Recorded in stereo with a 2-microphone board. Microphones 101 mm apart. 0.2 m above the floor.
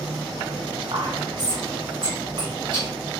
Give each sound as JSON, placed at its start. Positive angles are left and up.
{"t": 0.9, "sound": "whispering", "side_deg": -50, "distance_m": 1.4}